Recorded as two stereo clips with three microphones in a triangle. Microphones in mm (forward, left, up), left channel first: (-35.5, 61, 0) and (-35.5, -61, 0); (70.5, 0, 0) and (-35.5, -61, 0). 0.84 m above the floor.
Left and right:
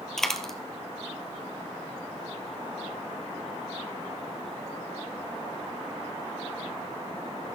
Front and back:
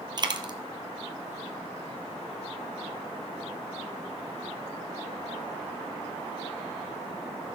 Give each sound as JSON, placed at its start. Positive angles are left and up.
{"t": 0.2, "sound": "a dropped coin", "azimuth_deg": 175, "distance_m": 1.1}